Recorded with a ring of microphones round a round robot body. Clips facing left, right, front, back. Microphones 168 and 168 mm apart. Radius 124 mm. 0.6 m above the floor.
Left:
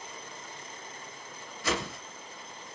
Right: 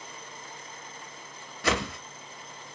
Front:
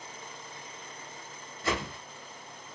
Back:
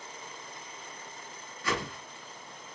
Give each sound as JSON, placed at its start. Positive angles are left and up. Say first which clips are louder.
{"t": 1.6, "sound": "a whoosh", "louder": "right 4 dB, front 1 dB", "azimuth_deg": -70, "distance_m": 0.7}